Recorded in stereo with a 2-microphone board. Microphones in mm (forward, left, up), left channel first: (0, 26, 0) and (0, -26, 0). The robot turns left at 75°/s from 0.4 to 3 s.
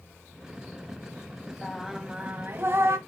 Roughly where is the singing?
Ahead.